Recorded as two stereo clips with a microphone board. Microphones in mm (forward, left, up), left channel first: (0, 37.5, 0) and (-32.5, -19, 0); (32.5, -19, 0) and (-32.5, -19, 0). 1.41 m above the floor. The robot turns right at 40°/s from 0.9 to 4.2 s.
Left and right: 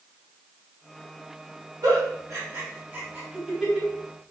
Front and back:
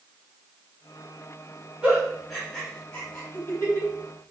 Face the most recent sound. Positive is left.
turn(degrees=-10)